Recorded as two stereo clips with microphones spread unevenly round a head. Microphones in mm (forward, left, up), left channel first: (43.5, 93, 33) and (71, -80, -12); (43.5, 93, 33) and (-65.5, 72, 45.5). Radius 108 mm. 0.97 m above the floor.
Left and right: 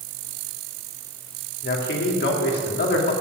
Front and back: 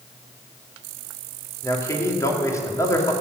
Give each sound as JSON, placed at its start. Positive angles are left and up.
{"t": 1.6, "sound": "a man speaking", "azimuth_deg": 75, "distance_m": 3.0}